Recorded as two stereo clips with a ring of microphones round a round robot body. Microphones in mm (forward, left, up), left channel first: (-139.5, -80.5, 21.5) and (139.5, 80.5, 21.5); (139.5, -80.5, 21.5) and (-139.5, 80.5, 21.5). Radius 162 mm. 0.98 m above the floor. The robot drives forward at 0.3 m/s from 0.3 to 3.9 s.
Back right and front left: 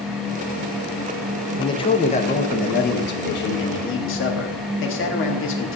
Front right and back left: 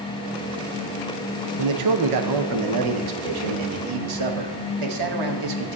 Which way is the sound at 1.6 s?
135° left.